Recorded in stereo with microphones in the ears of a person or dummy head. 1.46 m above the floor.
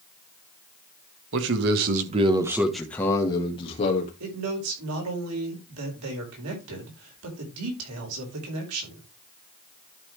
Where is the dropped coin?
No dropped coin in this recording.